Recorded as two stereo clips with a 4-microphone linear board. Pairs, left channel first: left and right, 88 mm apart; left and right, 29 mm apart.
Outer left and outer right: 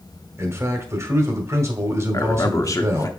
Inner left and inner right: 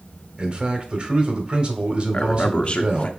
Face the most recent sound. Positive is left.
turn(degrees=40)  # may be behind; listen again after turning